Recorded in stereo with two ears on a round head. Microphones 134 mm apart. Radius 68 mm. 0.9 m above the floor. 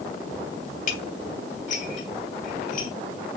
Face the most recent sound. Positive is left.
turn(degrees=50)  # may be behind; listen again after turning